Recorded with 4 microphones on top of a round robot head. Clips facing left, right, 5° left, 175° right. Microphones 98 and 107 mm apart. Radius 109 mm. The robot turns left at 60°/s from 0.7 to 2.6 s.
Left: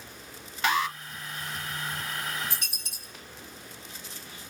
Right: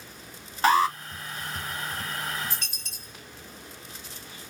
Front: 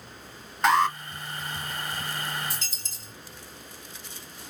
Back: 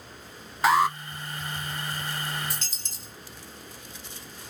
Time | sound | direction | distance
0.6 | an alarm | 90° right | 0.8 m
2.5 | a dropped coin | 170° left | 2.0 m